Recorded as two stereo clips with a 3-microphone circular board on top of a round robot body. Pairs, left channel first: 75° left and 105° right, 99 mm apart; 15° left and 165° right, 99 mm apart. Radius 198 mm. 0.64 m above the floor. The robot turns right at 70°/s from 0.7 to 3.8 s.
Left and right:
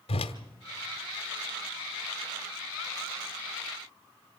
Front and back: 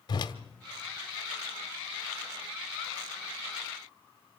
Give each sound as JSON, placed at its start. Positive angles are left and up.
{"t": 0.1, "sound": "a whoosh", "azimuth_deg": 60, "distance_m": 1.0}